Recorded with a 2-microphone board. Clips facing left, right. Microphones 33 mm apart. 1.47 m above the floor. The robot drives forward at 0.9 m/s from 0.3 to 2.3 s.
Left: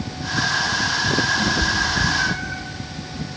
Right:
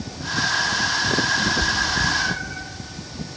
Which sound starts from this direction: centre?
A cat meowing, at 1.4 s.